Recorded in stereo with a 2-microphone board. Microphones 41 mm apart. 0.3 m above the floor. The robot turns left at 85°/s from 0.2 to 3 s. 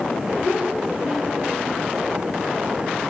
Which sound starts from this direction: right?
A child speaking, at 0.4 s.